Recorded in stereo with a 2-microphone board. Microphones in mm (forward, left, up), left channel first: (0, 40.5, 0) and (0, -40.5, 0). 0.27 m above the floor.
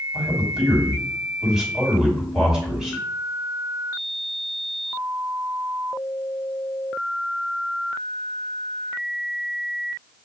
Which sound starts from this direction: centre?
A man speaking, at 0.1 s.